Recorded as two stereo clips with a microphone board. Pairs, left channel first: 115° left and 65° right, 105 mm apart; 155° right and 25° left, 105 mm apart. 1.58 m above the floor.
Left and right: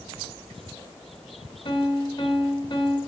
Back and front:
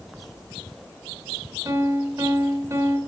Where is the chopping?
No chopping in this recording.